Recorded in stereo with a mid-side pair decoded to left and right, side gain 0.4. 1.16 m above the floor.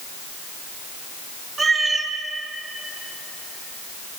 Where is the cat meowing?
40° right, 1.8 m.